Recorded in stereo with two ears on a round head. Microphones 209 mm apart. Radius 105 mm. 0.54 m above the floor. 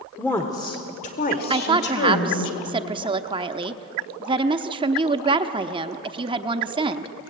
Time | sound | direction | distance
0.2 | a woman speaking | 5° left (ahead or behind) | 1.2 m
1.5 | a woman speaking | 20° right (ahead or behind) | 0.7 m